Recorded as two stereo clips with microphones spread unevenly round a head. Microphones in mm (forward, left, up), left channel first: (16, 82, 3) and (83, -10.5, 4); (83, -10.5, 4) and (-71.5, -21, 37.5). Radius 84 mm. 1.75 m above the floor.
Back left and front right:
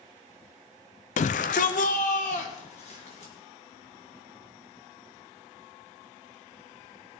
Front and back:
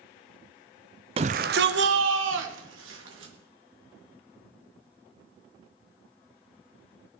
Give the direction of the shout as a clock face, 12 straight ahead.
8 o'clock.